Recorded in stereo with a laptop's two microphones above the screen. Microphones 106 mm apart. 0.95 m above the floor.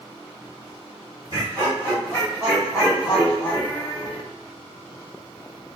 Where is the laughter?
35° right (ahead or behind), 1.6 m; by 4.2 s 50° left (ahead or behind), 0.7 m.